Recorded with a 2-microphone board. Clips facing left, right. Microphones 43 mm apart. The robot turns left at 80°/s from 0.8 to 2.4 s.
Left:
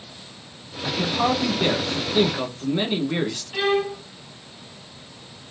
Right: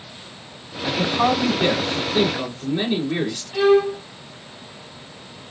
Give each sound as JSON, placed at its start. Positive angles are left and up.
{"t": 0.8, "sound": "a man speaking", "side_deg": -20, "distance_m": 1.1}
{"t": 3.5, "sound": "a violin", "side_deg": 15, "distance_m": 2.0}